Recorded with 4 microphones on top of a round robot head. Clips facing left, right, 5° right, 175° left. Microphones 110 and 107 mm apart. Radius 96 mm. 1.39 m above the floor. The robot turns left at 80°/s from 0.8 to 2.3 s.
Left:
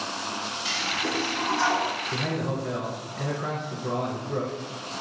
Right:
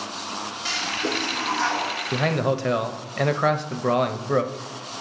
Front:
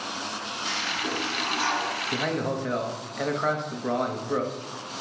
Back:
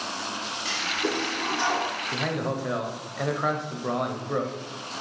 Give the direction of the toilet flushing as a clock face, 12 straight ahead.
4 o'clock.